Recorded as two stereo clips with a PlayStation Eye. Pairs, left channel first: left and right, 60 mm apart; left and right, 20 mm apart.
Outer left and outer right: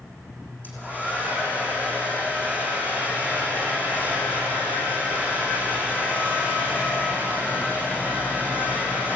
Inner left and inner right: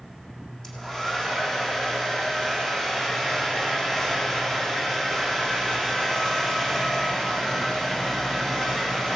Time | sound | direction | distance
0.6 | a hair dryer | 30° left (ahead or behind) | 6 m